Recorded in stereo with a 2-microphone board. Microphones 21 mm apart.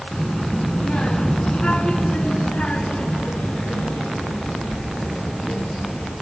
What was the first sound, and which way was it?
A child speaking, 30° left (ahead or behind).